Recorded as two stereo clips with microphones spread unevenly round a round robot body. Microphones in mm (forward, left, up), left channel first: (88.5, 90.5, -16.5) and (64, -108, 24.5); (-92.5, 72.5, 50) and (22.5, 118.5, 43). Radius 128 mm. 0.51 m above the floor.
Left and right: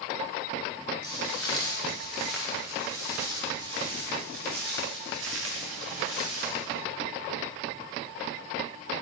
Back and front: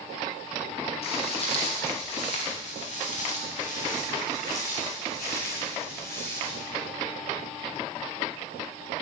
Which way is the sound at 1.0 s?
165° left.